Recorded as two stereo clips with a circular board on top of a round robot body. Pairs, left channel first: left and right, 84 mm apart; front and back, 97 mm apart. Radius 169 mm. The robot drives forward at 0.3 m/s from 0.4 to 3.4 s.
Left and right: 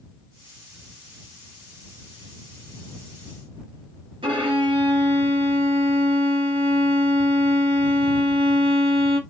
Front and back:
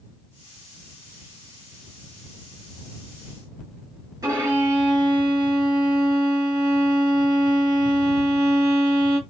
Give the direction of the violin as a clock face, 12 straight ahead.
4 o'clock.